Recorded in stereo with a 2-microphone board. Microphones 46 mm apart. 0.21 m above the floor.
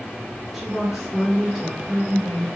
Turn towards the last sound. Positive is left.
turn(degrees=-5)  # may be behind; listen again after turning